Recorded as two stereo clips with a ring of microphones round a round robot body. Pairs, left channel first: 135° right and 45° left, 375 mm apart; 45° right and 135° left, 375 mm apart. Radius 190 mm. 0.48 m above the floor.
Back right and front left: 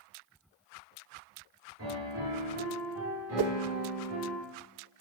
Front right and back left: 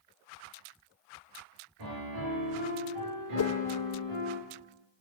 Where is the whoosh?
Straight ahead, 0.7 m.